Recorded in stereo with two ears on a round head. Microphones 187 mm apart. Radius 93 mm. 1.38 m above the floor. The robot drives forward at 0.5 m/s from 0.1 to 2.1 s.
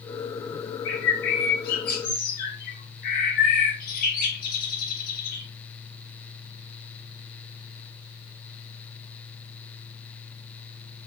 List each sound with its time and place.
0.8 s a bird: 55° left (ahead or behind), 1.7 m; by 5.5 s 45° left (ahead or behind), 2 m